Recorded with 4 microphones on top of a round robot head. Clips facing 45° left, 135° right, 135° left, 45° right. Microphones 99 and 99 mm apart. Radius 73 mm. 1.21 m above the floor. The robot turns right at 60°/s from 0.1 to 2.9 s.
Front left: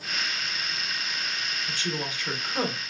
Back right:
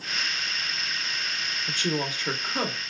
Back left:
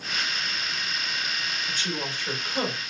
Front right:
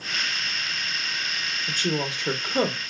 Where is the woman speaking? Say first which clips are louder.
Back right 5 dB, front right 8 dB; 100° right, 0.9 m; by 2.8 s 35° right, 0.9 m.